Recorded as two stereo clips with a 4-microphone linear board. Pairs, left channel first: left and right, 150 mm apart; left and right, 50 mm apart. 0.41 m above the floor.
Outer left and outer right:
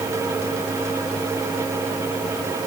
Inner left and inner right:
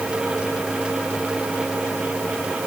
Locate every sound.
Only background noise.